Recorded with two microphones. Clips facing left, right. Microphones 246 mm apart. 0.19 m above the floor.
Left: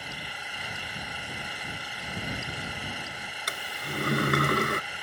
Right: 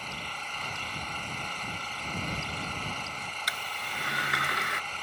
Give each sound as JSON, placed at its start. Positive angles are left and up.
{"t": 0.0, "sound": "an engine running", "side_deg": 10}
{"t": 3.5, "sound": "a sliding door", "side_deg": 55}